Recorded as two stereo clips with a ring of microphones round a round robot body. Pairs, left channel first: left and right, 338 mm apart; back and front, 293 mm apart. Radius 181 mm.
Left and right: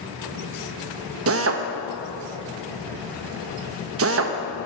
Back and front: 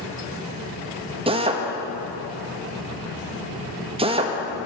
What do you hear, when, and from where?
1.3 s a drill: 65° right, 1.0 m